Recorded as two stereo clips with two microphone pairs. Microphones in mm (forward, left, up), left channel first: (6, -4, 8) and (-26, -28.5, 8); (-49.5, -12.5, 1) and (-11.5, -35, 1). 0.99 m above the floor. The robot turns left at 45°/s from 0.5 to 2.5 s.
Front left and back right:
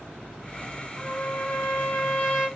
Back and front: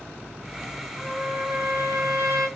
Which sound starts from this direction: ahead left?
A trumpet, at 1.0 s.